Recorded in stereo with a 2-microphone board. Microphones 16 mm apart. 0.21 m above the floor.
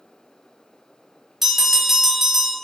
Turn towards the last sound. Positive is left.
turn(degrees=-20)  # may be behind; listen again after turning